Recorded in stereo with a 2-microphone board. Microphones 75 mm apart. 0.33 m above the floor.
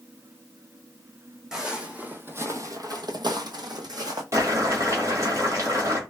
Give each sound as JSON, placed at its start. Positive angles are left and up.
{"t": 1.5, "sound": "footsteps", "side_deg": -5, "distance_m": 1.1}
{"t": 4.3, "sound": "boiling", "side_deg": -45, "distance_m": 1.4}